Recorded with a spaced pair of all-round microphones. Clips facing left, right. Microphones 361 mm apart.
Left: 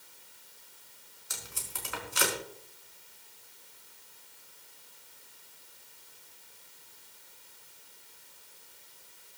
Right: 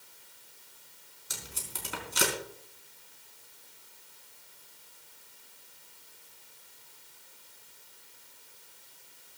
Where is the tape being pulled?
45° right (ahead or behind), 4 m.